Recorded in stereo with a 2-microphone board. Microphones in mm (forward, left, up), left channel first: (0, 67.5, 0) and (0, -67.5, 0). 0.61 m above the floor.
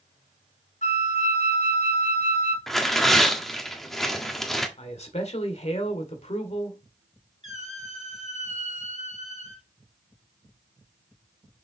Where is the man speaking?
55° left (ahead or behind), 1.8 m.